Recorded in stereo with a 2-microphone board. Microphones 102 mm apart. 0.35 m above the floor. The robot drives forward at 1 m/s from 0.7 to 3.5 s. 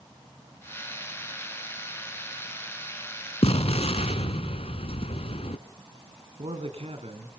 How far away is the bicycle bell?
No bicycle bell in this recording.